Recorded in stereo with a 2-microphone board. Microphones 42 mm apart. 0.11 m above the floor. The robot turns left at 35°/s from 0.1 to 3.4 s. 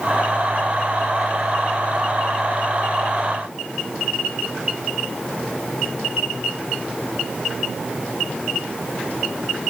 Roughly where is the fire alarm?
I don't hear a fire alarm.